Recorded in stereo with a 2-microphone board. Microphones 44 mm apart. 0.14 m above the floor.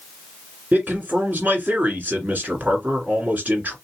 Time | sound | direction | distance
0.7 | a man speaking | 40° right (ahead or behind) | 2.0 m